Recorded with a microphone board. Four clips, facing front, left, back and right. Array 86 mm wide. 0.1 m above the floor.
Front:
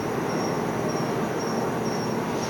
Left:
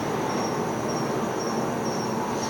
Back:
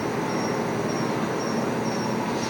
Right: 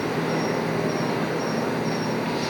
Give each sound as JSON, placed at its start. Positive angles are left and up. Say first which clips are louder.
{"t": 0.0, "sound": "an insect", "louder": "right 2 dB, even", "azimuth_deg": -110, "distance_m": 1.9}